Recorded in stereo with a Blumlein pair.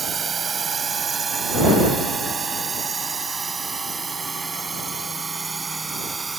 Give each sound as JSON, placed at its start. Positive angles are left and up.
{"t": 0.0, "sound": "a drone", "azimuth_deg": -20}